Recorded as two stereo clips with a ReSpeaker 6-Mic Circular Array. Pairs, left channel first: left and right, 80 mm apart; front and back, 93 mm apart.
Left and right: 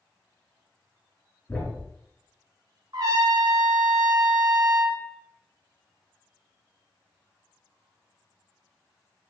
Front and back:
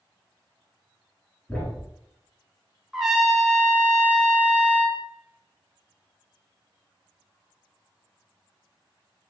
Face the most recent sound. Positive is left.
turn(degrees=-95)